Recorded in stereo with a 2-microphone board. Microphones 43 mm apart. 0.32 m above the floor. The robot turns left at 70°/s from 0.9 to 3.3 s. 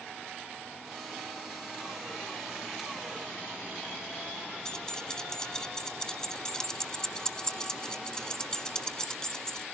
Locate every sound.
4.7 s keys jangling: 15° left (ahead or behind), 1.2 m